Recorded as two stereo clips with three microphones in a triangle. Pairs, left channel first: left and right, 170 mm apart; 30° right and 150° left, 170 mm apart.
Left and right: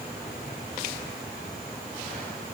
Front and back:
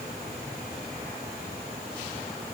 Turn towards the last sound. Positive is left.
No sound to turn to.